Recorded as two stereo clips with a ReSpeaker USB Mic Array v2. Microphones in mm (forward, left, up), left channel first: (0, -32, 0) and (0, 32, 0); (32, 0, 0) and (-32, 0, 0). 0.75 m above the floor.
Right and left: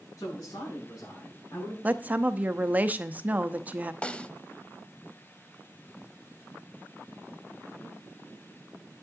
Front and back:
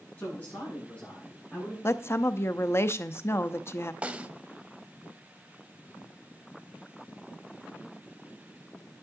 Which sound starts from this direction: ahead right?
A woman speaking, at 0.2 s.